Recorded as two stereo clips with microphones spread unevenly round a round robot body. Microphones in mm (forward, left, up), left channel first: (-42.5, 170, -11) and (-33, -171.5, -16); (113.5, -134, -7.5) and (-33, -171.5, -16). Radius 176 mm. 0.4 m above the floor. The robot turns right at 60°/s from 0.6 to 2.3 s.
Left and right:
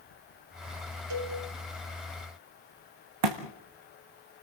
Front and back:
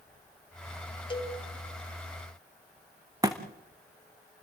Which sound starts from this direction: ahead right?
A cowbell, at 1.1 s.